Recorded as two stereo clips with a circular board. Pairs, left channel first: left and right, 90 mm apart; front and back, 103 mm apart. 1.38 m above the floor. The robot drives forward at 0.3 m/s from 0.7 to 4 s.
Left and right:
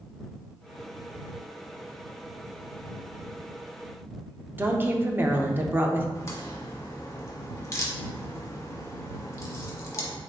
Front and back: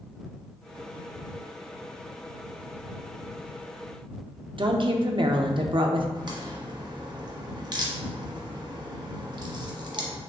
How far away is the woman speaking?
About 0.6 m.